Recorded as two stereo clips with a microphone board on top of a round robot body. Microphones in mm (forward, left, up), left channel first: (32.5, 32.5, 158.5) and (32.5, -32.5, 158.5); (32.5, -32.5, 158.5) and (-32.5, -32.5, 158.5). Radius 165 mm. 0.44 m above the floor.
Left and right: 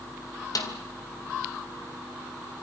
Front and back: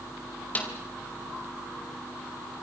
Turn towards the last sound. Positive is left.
turn(degrees=65)